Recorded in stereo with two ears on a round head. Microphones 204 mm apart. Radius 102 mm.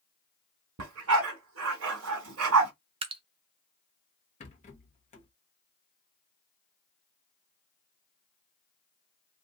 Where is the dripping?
25° right (ahead or behind), 0.6 m.